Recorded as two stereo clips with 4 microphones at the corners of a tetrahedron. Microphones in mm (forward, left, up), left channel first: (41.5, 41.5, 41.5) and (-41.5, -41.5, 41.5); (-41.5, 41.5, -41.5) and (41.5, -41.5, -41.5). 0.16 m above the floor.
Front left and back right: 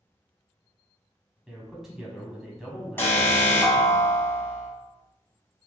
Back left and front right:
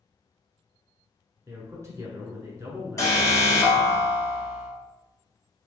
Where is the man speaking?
50° right, 1.1 m.